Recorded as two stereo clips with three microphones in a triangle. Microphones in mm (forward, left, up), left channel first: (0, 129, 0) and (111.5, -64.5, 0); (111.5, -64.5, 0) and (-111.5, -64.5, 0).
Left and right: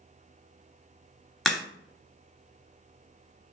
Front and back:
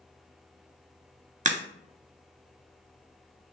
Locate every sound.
1.4 s a crack: 155° right, 0.9 m